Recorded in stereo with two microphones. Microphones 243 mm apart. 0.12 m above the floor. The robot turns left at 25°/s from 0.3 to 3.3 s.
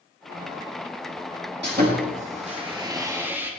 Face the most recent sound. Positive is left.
turn(degrees=-170)